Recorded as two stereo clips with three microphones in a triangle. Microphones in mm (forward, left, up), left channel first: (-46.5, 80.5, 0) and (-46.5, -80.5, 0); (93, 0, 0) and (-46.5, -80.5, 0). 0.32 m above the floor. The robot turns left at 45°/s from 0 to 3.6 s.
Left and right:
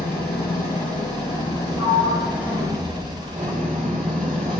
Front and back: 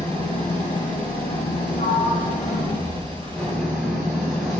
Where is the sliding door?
35° left, 4 m; by 4.5 s 50° right, 4 m.